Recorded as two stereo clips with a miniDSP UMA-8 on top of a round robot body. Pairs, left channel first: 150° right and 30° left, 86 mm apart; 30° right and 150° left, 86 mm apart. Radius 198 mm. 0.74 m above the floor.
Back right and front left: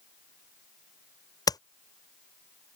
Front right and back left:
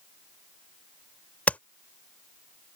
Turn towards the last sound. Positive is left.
turn(degrees=-105)